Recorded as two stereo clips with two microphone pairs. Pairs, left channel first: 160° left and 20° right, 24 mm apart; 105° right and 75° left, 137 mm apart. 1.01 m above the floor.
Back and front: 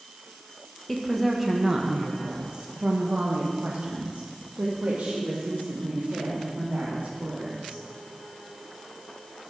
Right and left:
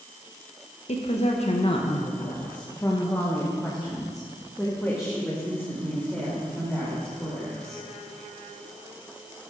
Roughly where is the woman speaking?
Behind right.